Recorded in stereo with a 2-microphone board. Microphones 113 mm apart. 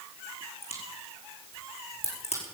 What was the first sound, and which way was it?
A crack, 70° left (ahead or behind).